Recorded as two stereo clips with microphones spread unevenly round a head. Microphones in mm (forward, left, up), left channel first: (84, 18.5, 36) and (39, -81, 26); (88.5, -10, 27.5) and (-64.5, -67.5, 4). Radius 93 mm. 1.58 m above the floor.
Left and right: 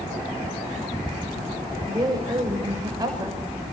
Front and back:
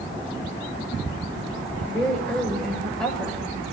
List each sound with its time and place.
1.9 s a woman speaking: 55° right, 7.5 m